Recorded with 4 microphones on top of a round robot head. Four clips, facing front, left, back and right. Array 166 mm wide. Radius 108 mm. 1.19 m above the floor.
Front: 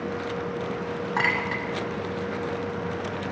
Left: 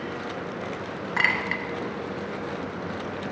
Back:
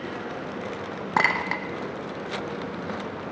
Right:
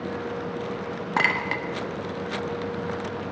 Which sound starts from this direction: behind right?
A clink, at 1.2 s.